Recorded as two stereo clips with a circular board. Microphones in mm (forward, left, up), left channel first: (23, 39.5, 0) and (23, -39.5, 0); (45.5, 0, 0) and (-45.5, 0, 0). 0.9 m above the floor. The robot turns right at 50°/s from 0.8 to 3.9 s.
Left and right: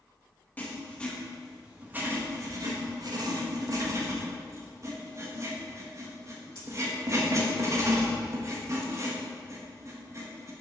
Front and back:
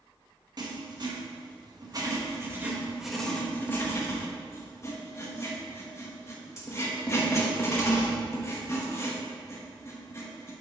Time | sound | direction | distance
0.6 | writing | 155° left | 1.3 m